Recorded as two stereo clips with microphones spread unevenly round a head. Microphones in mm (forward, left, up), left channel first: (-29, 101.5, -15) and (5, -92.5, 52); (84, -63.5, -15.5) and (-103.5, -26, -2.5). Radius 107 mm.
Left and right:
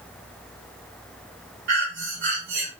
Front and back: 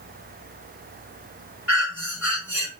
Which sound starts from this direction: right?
Breathing, at 1.7 s.